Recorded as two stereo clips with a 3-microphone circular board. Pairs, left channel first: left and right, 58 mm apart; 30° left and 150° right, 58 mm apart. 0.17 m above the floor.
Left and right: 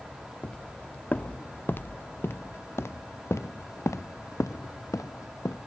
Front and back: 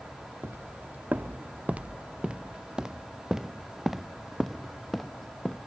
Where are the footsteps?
160° left; by 5.6 s 115° left.